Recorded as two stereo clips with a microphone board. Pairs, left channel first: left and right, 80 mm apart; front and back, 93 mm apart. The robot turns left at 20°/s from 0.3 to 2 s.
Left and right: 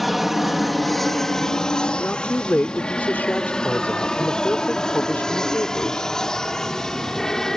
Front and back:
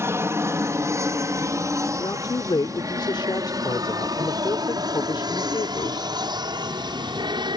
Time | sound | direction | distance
0.0 | an aircraft | straight behind | ?
2.0 | a woman speaking | 25° left | ?